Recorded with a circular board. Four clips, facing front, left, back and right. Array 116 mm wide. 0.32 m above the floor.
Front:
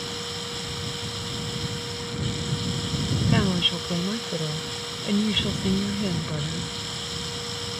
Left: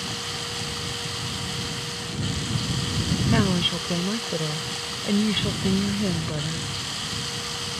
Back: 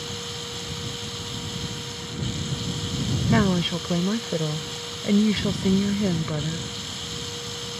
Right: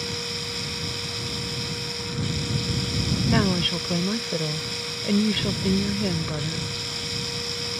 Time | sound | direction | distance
0.0 | running water | 85° left | ?
3.3 | a woman speaking | 170° right | ?